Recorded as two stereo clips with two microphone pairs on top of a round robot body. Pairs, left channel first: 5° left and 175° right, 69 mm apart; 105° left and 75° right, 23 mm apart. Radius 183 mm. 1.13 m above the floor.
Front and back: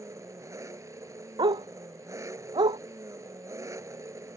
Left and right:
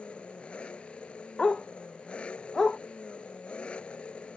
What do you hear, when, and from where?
0.0 s an engine running: 140° left
1.4 s a dog barking: 170° left